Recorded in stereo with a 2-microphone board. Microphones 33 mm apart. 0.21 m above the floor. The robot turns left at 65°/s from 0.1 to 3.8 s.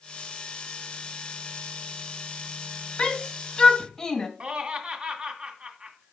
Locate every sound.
3.0 s a shout: 30° left (ahead or behind), 1.5 m; by 4.3 s 15° left (ahead or behind), 1.5 m
4.4 s laughter: 40° right (ahead or behind), 1.9 m